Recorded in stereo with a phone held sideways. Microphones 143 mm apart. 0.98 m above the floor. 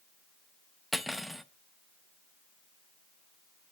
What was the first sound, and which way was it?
Cutlery clinking, centre (ahead or behind).